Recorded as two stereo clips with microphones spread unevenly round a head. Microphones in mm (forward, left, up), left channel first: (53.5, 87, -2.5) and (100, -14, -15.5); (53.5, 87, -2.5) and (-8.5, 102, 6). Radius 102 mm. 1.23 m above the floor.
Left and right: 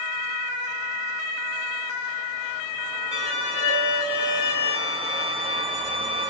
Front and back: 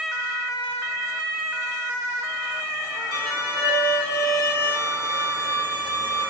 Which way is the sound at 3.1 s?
170° right.